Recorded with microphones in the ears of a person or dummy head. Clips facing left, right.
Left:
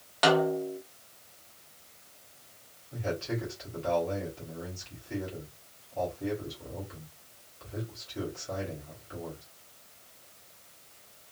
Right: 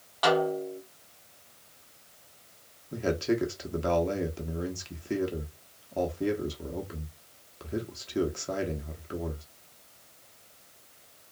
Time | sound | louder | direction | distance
0.2 | a snare drum | left 1 dB | 25° left (ahead or behind) | 0.7 m
2.9 | a man speaking | right 6 dB | 60° right (ahead or behind) | 0.8 m